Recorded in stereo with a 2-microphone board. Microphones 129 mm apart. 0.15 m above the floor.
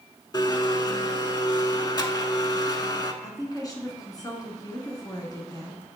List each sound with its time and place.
0.3 s a blender: 30° left (ahead or behind), 0.5 m
3.2 s a woman speaking: 30° left (ahead or behind), 1.5 m